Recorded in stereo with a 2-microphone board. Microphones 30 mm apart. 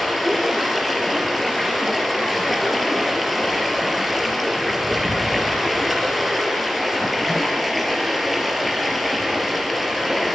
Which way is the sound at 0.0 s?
Centre (ahead or behind).